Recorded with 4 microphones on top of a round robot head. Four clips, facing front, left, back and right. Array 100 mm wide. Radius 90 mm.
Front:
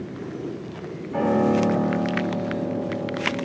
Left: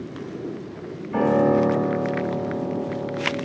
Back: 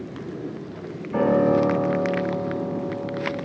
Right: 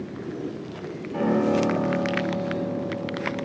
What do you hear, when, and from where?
1.1 s a piano: 130° left, 2 m